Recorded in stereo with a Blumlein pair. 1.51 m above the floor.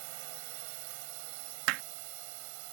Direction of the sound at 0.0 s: 45° right.